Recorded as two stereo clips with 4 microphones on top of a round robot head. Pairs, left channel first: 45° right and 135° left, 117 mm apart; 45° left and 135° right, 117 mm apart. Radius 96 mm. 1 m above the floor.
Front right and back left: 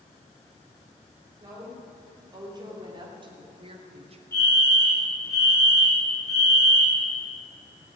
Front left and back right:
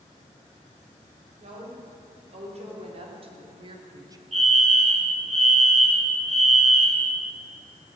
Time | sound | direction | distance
1.4 | a woman speaking | 165° right | 5.5 m
4.3 | a fire alarm | 110° right | 7 m